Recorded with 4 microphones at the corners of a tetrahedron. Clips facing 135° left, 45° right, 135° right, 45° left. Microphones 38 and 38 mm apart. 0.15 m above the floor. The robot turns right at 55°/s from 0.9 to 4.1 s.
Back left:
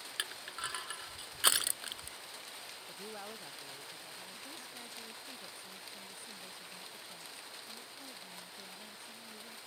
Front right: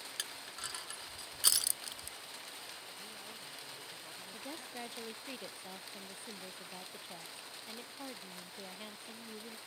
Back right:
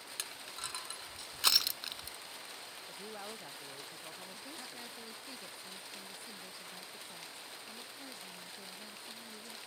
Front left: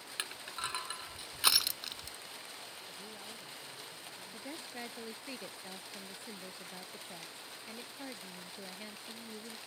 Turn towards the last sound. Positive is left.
turn(degrees=0)